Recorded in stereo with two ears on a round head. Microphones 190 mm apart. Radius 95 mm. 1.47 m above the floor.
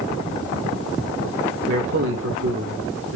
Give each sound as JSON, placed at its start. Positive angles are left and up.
{"t": 1.7, "sound": "a man speaking", "side_deg": -70, "distance_m": 2.5}